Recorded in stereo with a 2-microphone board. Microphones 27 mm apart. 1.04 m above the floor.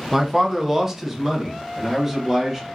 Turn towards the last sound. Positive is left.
turn(degrees=-10)  # may be behind; listen again after turning